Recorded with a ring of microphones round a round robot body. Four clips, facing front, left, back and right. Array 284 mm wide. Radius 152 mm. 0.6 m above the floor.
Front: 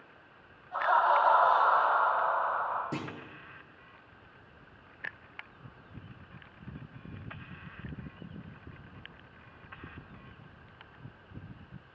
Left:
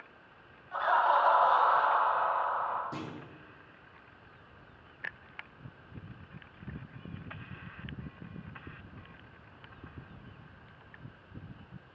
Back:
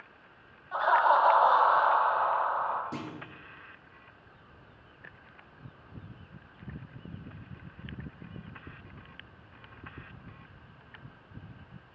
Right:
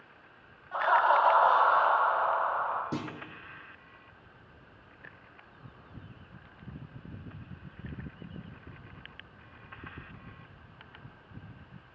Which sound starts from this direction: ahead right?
A clunk, at 2.9 s.